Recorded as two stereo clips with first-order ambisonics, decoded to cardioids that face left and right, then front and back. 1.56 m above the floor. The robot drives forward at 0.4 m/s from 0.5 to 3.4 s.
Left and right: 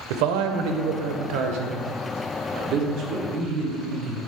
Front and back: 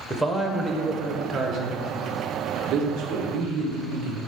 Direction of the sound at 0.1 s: 90° right.